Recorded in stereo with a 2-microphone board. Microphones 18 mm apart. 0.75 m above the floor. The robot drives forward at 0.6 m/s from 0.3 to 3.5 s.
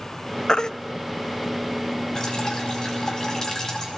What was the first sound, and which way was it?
A baby crying, 45° left (ahead or behind).